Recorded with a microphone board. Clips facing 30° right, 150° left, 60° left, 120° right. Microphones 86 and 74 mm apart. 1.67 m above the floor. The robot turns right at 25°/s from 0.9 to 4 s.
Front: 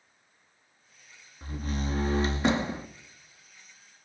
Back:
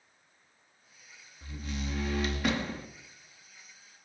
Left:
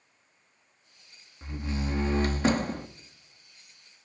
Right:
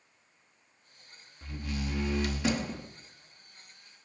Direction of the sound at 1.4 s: Straight ahead.